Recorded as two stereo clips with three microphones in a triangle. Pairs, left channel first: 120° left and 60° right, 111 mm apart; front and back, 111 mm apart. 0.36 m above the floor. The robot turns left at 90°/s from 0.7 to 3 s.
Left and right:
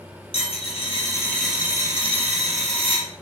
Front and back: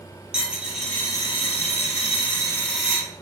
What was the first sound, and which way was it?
A dropped coin, 95° left.